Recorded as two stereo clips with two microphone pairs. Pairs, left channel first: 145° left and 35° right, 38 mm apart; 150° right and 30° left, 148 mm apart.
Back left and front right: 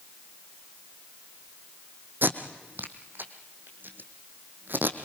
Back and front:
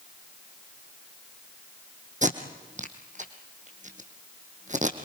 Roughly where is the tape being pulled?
Ahead.